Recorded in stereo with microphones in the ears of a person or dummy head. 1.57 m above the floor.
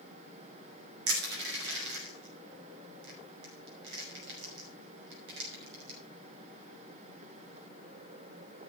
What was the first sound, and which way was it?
Crushing, 75° right (ahead or behind).